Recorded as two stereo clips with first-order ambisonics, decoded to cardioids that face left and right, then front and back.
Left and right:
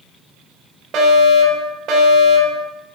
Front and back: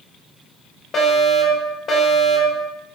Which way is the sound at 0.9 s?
55° right.